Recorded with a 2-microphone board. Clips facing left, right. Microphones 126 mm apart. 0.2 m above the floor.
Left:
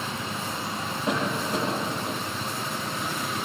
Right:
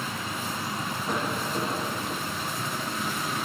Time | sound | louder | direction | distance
1.1 | a cough | left 4 dB | 75° left (ahead or behind) | 8.5 m